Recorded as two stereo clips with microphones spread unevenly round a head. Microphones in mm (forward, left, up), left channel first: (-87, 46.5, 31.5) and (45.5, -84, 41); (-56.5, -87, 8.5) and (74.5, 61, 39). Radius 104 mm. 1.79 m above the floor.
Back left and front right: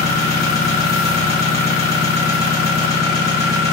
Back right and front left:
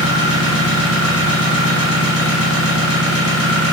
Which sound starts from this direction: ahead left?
An engine running, at 0.0 s.